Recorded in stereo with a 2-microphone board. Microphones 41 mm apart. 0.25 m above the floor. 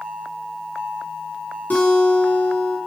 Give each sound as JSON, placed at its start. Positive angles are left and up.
{"t": 1.7, "sound": "a guitar", "side_deg": 50, "distance_m": 2.5}